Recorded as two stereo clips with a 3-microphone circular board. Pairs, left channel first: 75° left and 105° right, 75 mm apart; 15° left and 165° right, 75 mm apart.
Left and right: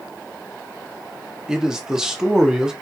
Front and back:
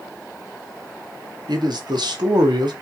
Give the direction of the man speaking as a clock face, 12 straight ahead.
6 o'clock.